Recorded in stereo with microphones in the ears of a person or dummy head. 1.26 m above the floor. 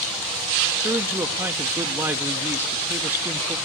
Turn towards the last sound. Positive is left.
turn(degrees=-10)  # may be behind; listen again after turning